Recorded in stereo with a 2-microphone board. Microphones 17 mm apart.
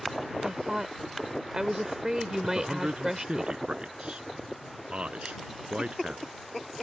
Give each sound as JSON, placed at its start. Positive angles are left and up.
{"t": 0.4, "sound": "a woman speaking", "side_deg": -30}
{"t": 2.4, "sound": "a man speaking", "side_deg": -75}